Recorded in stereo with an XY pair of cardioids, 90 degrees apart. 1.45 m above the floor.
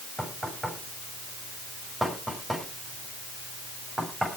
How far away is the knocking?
About 7.5 m.